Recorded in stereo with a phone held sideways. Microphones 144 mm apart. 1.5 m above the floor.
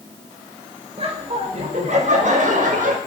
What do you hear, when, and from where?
1.0 s laughter: 40° right (ahead or behind), 5 m; by 3.0 s 70° right (ahead or behind), 6 m